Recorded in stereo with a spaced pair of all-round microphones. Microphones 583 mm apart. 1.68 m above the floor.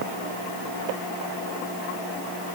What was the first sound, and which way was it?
Only background noise.